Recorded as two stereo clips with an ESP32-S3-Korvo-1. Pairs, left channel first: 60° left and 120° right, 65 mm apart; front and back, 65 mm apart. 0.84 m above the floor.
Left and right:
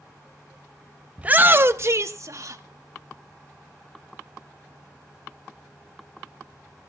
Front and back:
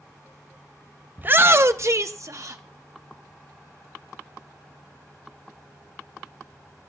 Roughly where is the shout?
Behind.